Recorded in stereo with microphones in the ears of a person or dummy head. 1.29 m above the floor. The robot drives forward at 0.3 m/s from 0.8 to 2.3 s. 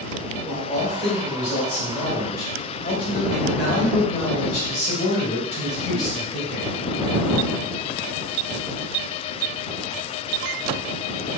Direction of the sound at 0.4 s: 35° left (ahead or behind).